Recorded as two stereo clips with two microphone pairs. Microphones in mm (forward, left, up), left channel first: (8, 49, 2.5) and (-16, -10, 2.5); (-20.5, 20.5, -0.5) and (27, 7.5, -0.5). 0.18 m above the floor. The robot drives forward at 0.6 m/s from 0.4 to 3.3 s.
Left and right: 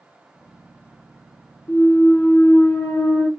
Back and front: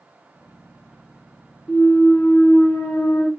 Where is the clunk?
90° left, 1.2 m; by 3.3 s 135° left, 1.6 m.